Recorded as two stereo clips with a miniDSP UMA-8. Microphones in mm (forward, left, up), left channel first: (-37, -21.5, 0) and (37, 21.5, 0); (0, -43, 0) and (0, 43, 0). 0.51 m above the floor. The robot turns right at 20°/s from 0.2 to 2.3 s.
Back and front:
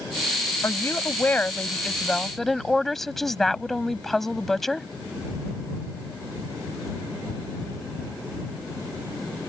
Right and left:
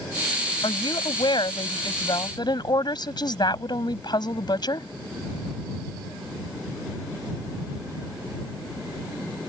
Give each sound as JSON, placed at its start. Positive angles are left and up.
{"t": 0.6, "sound": "a woman speaking", "azimuth_deg": -95}